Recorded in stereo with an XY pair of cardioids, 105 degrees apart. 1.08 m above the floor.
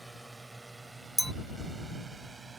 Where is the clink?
5° right.